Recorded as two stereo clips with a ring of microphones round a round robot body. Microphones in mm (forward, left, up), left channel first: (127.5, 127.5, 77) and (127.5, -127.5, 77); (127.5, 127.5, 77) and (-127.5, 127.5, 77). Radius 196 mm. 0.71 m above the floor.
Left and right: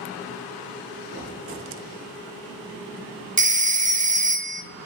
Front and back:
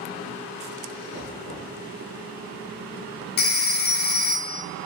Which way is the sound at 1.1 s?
145° right.